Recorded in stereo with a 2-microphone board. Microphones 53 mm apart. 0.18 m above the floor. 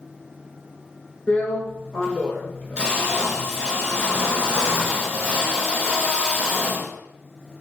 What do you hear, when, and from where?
1.3 s a drill: 20° left (ahead or behind), 0.9 m